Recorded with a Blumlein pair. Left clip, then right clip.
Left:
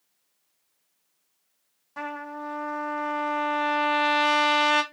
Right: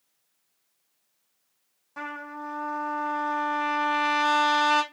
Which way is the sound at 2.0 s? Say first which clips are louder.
Left 2 dB; 5° left.